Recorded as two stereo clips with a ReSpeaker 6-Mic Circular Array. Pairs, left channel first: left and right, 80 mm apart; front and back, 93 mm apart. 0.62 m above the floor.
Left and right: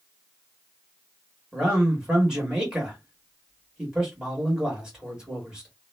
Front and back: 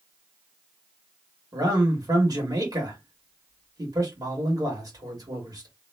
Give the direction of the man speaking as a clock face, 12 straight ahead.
6 o'clock.